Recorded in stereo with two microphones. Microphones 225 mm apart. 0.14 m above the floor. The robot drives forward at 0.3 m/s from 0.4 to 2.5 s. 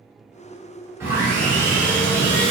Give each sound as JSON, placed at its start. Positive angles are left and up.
{"t": 1.0, "sound": "sawing", "side_deg": -10, "distance_m": 1.6}